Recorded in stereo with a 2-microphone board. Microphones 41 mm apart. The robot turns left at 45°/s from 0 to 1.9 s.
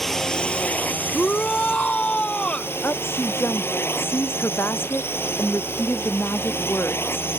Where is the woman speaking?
70° left (ahead or behind).